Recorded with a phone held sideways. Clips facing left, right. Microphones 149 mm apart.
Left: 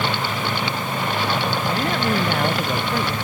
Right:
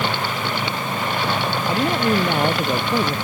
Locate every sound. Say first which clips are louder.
1.7 s a man speaking: right 4 dB; 15° right (ahead or behind); by 3.1 s 20° right (ahead or behind)